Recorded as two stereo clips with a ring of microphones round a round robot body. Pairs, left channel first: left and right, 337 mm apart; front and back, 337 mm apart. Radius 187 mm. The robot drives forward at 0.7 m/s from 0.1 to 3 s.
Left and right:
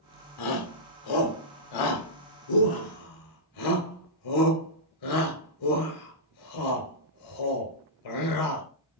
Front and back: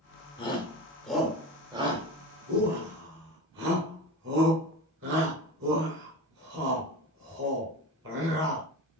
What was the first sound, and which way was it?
A shout, 75° left.